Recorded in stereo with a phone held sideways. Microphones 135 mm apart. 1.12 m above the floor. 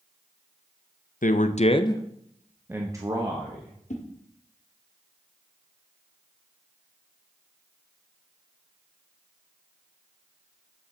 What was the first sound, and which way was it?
A man speaking, 75° left (ahead or behind).